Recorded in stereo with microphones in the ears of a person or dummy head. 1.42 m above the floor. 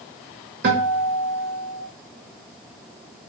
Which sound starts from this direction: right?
A guitar, at 0.6 s.